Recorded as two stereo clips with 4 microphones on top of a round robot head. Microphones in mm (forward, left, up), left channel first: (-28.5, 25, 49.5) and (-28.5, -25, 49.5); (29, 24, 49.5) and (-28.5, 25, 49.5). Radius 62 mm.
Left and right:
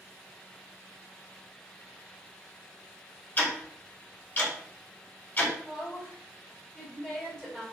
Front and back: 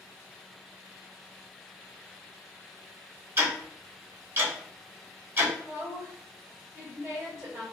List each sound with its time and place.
3.4 s ticking: 140° left, 1.5 m
5.6 s a woman speaking: 170° left, 2.0 m